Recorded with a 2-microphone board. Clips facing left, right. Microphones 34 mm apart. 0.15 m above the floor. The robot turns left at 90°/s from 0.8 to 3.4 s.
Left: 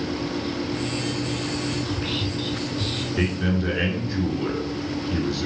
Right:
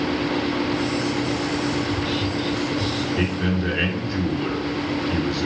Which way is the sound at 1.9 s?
15° left (ahead or behind).